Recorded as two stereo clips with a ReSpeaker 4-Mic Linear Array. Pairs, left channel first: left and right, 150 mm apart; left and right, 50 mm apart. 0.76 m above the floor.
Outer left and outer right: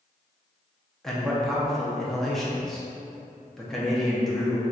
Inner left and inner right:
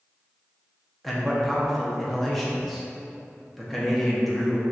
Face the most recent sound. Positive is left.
turn(degrees=0)  # may be behind; listen again after turning